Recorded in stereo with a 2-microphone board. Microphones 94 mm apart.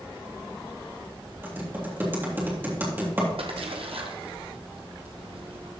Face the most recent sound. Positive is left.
turn(degrees=-75)  # may be behind; listen again after turning